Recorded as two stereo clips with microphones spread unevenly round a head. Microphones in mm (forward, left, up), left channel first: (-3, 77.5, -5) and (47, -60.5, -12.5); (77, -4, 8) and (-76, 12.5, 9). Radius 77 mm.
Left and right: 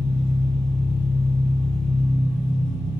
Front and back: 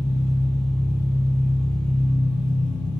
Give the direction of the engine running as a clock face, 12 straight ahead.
3 o'clock.